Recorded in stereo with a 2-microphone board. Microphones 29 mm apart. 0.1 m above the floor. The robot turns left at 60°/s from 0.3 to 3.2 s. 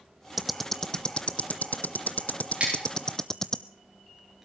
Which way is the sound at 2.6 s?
45° right (ahead or behind).